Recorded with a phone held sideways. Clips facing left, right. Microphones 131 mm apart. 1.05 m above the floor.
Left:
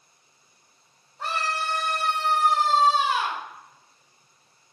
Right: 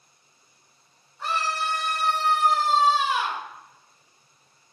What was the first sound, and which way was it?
A scream, 60° left (ahead or behind).